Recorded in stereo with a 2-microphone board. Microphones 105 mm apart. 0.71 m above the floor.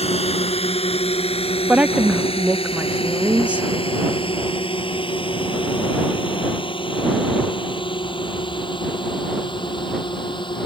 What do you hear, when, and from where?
0.0 s a drone: 75° left (ahead or behind); by 10.7 s 50° left (ahead or behind)
1.7 s a woman speaking: 15° right (ahead or behind)